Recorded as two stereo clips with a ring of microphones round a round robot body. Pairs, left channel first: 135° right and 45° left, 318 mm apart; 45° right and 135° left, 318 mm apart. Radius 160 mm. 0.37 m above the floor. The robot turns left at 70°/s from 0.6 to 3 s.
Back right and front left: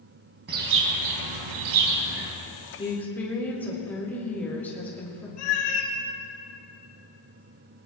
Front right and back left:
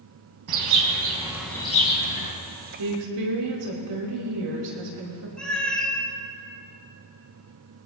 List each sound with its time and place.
0.5 s a bird: 105° left, 2 m; by 2.3 s 15° right, 2 m
2.8 s a woman speaking: 155° left, 4.5 m; by 5.3 s 140° left, 4.5 m
5.4 s a cat meowing: 130° right, 2 m